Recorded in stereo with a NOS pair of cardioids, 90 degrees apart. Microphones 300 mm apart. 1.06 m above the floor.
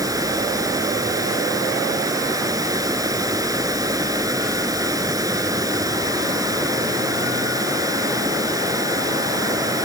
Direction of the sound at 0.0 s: 10° right.